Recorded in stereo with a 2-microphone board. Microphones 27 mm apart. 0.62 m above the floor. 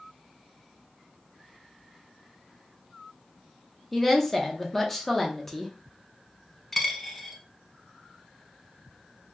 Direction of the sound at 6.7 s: 10° left (ahead or behind).